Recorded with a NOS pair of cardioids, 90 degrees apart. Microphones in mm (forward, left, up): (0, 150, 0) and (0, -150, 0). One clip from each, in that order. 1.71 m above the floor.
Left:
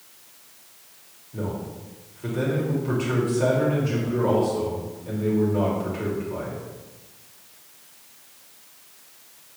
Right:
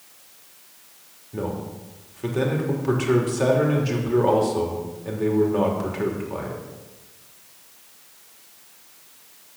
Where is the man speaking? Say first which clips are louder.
Right 2 dB; 50° right, 3 m.